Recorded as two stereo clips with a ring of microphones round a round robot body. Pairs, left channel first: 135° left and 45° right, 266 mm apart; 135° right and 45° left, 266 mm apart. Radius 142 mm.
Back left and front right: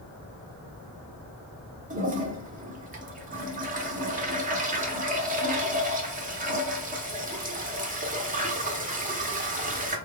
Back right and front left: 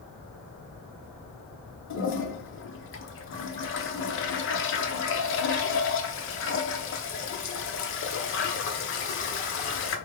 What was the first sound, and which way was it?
A toilet flushing, 100° right.